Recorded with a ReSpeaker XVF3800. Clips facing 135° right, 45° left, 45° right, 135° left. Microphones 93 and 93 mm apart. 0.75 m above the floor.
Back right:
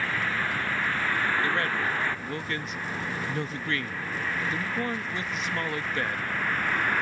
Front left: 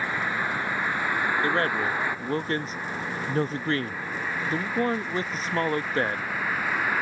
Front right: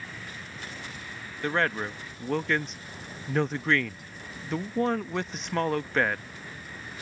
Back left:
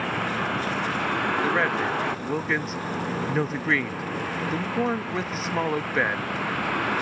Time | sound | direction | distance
0.0 | a vehicle | 120° left | ?
1.4 | a man speaking | 55° left | ?